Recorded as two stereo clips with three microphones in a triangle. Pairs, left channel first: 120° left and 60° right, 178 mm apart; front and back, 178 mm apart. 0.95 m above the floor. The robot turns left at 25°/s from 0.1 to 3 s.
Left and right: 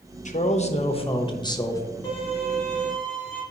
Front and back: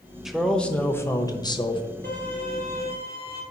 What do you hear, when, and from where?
0.2 s a man speaking: 90° left, 0.8 m; by 1.8 s 55° left, 0.8 m
2.0 s a violin: 175° right, 2.5 m; by 3.4 s 160° left, 2.5 m